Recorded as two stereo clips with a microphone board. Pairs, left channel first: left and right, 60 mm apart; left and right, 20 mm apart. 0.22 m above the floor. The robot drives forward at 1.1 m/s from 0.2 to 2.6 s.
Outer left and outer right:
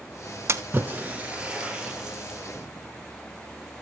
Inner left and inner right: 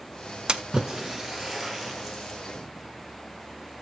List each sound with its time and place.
0.5 s a splash: 45° right (ahead or behind), 0.7 m; by 2.4 s 10° right (ahead or behind), 2.5 m